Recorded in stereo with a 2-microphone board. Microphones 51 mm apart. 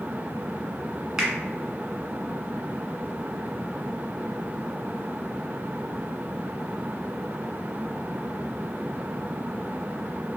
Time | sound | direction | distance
1.2 | a finger snap | 10° right (ahead or behind) | 1.5 m